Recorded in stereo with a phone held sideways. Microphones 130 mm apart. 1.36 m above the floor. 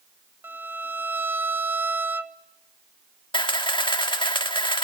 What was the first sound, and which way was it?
A violin, 15° right (ahead or behind).